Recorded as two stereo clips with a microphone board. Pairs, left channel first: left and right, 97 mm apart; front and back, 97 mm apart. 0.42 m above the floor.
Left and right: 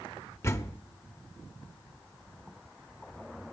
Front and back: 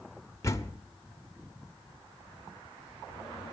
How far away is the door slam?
About 0.9 m.